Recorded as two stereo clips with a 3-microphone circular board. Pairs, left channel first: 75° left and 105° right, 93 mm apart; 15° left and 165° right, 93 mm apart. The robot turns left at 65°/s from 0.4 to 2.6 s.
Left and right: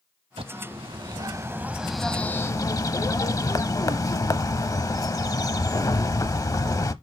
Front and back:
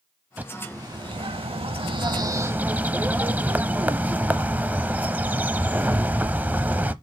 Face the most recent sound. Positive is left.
turn(degrees=125)